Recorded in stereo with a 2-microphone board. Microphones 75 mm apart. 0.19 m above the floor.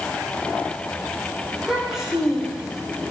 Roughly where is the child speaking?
Centre.